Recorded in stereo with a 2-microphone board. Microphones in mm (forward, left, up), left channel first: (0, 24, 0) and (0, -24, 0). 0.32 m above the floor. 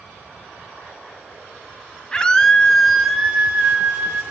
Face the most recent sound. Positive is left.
turn(degrees=-45)  # may be behind; listen again after turning